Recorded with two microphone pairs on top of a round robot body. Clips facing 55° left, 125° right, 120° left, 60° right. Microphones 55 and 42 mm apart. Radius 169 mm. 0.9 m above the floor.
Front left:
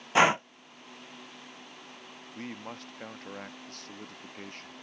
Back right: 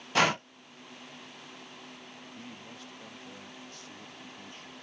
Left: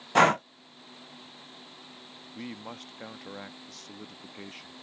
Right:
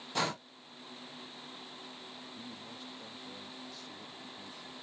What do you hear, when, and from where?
0.1 s breathing: 120° left
2.4 s a man speaking: 90° left